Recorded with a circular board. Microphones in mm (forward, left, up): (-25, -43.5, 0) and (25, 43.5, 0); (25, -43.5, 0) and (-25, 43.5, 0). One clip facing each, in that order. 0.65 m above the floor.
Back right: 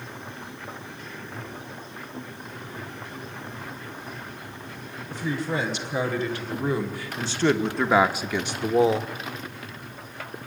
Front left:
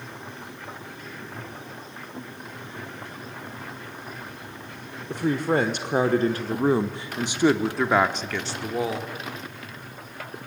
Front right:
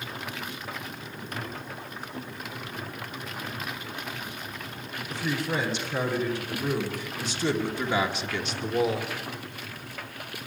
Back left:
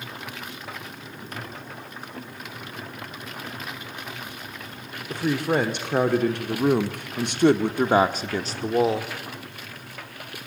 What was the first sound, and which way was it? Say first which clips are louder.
A woman speaking: front left 5 dB, back left 6 dB; 85° left.